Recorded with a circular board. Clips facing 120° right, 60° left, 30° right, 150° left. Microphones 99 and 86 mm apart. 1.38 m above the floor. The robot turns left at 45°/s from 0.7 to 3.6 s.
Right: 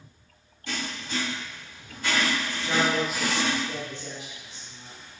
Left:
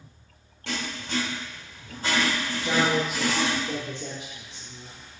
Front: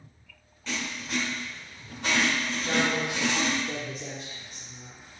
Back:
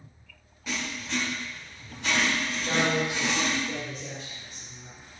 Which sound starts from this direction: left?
Writing, at 0.7 s.